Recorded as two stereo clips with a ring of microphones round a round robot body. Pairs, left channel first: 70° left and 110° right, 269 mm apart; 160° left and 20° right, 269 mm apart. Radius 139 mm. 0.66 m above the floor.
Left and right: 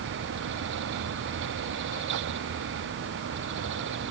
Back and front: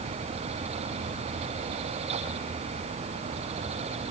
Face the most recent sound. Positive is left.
No sound to turn to.